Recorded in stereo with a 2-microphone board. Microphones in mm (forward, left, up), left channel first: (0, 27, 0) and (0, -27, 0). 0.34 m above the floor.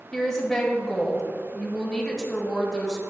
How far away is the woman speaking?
About 1.3 m.